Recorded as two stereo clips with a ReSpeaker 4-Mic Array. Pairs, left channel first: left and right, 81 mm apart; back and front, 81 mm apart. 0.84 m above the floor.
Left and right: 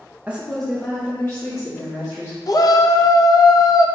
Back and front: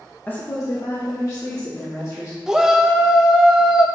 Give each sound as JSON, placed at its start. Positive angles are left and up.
{"t": 0.3, "sound": "a woman speaking", "azimuth_deg": -135, "distance_m": 0.7}
{"t": 2.5, "sound": "a shout", "azimuth_deg": 80, "distance_m": 0.5}